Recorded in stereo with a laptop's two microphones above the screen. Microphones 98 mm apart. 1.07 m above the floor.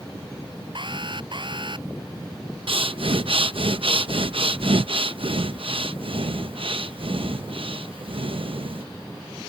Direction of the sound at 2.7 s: 65° right (ahead or behind).